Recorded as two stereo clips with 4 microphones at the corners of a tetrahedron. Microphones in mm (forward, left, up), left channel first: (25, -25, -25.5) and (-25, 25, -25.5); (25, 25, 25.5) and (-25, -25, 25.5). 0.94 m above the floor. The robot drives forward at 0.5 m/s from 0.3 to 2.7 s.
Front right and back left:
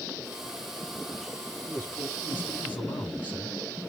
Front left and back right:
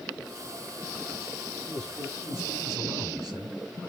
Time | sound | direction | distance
1.6 | a man speaking | 105° right | 7 m